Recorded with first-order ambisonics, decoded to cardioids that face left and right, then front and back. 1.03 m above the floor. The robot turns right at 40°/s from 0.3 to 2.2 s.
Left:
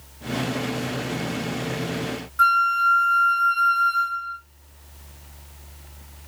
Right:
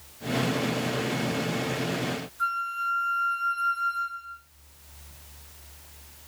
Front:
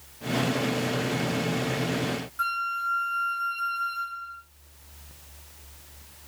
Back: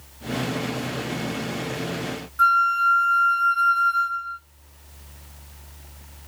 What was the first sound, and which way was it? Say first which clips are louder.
A flute: left 12 dB, back 11 dB; 100° left.